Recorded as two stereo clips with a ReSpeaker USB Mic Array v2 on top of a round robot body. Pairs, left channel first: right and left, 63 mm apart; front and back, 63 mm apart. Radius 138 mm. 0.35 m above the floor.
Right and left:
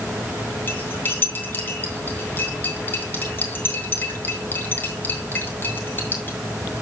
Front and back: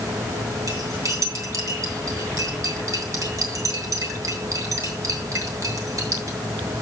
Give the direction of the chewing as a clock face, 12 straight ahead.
I don't hear chewing.